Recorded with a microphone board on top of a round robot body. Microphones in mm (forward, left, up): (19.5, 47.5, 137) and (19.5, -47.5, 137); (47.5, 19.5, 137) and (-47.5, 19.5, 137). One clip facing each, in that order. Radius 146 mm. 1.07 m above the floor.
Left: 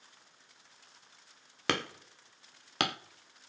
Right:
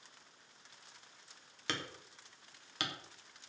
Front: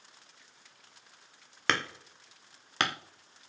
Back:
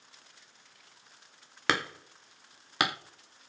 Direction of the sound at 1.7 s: 100° left.